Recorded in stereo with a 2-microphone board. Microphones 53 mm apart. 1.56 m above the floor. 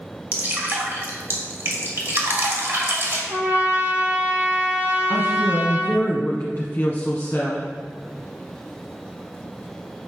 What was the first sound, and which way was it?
Dripping, 45° right (ahead or behind).